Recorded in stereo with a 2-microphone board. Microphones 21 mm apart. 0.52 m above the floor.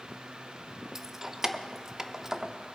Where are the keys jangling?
20° right (ahead or behind), 0.6 m.